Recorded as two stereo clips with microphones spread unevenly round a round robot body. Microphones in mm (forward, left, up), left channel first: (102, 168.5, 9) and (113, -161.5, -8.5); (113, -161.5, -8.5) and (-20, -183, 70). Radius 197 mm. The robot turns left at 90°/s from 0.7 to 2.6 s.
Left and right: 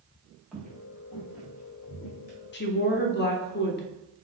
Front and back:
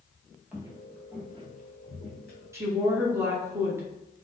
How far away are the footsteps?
About 0.5 m.